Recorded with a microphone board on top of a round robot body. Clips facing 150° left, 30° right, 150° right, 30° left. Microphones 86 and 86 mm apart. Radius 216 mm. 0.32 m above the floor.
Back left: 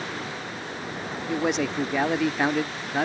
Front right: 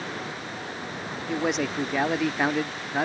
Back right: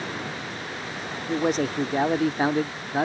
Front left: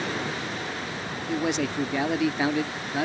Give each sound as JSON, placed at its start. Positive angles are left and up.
{"t": 1.3, "sound": "a man speaking", "azimuth_deg": -120}